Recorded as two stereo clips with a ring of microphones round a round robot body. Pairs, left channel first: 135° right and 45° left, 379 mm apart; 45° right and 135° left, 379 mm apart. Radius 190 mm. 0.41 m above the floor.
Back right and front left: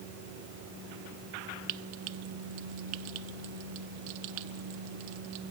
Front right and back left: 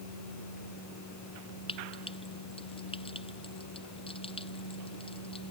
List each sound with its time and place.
1.7 s frying: 30° left